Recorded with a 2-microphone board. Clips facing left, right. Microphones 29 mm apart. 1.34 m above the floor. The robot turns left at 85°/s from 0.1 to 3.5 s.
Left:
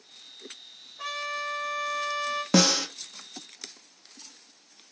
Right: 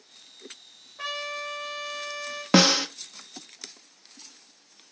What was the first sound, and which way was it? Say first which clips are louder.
A trumpet: even; 80° right.